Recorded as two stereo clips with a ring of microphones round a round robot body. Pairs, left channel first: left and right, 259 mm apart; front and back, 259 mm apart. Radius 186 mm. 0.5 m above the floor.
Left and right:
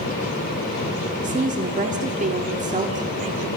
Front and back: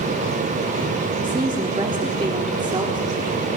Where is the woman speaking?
120° right, 1.1 m.